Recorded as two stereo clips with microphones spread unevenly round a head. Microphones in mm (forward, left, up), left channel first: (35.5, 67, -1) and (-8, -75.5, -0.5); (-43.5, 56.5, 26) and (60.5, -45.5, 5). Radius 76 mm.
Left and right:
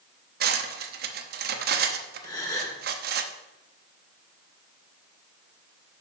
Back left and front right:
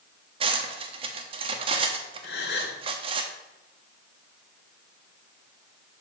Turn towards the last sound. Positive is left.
turn(degrees=140)